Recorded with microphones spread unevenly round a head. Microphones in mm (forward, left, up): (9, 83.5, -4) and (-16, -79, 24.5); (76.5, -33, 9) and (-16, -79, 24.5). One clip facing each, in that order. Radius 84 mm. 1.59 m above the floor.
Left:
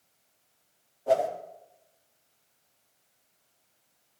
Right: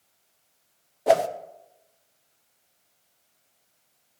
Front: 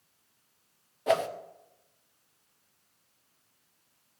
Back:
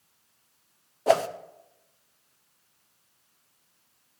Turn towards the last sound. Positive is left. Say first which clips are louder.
# right 4 dB, back 4 dB
turn(degrees=-100)